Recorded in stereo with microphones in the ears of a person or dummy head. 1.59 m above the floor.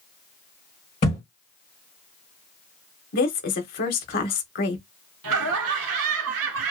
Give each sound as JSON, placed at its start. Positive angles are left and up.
{"t": 1.0, "sound": "a thud", "side_deg": 30, "distance_m": 1.5}
{"t": 3.1, "sound": "a woman speaking", "side_deg": 45, "distance_m": 0.9}
{"t": 5.2, "sound": "laughter", "side_deg": -85, "distance_m": 0.9}